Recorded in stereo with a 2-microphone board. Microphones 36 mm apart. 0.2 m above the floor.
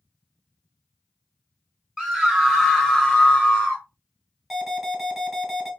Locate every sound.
2.0 s a scream: centre (ahead or behind), 2 m; by 3.8 s 25° left (ahead or behind), 1.6 m
4.5 s an alarm: 5° right (ahead or behind), 1.8 m